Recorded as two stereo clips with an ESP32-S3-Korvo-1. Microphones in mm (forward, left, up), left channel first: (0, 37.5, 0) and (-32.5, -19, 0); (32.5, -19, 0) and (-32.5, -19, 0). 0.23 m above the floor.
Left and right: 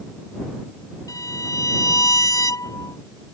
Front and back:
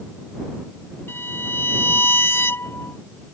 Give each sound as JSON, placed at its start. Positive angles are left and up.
{"t": 1.1, "sound": "a violin", "azimuth_deg": 50}